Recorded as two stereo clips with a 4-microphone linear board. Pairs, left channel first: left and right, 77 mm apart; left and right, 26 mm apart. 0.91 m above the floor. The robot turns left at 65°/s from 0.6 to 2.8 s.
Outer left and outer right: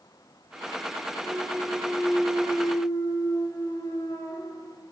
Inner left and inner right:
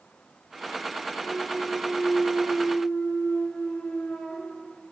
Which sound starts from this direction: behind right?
A clunk, at 1.2 s.